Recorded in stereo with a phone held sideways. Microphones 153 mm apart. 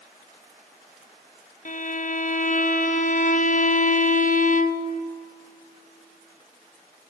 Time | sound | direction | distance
1.6 | a violin | 60° left (ahead or behind) | 0.5 m